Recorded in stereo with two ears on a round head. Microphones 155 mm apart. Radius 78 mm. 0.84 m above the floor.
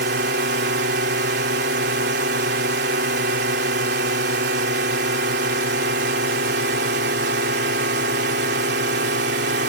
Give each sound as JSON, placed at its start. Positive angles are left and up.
{"t": 0.0, "sound": "a drone", "side_deg": -65}